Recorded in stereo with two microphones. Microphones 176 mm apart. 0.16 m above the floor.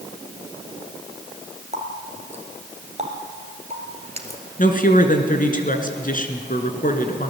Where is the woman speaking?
50° left (ahead or behind), 2.5 m.